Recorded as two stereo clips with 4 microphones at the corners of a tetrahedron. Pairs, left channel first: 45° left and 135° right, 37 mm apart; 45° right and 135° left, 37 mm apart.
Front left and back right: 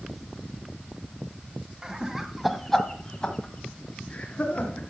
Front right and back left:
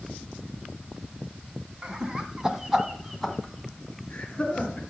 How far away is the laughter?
About 1.3 m.